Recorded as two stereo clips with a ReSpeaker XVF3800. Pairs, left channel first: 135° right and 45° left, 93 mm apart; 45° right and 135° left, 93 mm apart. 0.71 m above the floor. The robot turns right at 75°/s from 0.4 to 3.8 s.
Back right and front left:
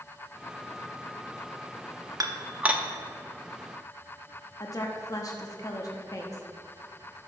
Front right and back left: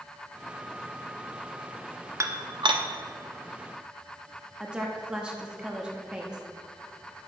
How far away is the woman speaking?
About 0.8 m.